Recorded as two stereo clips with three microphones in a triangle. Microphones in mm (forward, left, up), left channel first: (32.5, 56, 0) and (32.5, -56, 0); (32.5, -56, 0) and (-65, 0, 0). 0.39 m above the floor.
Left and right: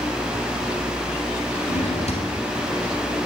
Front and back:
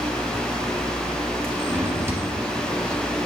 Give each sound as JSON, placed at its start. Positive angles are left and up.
{"t": 1.7, "sound": "a drawer", "azimuth_deg": 80, "distance_m": 1.9}